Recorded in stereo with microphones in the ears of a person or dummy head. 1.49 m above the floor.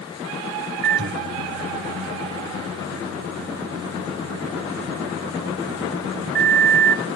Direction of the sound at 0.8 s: 60° right (ahead or behind).